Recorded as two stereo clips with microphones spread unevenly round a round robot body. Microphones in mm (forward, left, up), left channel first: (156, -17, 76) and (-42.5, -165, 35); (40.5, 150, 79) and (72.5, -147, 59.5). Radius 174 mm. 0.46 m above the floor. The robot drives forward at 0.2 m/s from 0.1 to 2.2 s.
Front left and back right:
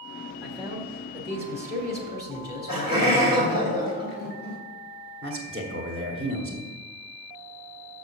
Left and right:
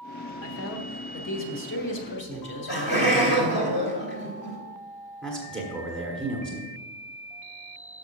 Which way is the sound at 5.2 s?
175° right.